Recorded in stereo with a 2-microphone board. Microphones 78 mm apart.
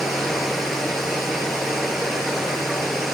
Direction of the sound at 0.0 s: Centre (ahead or behind).